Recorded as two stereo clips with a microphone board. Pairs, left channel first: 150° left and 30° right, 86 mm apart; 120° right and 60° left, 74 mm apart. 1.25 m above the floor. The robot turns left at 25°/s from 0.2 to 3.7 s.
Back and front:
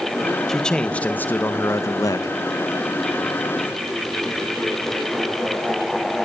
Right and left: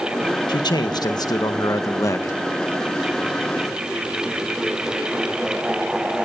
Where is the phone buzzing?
No phone buzzing in this recording.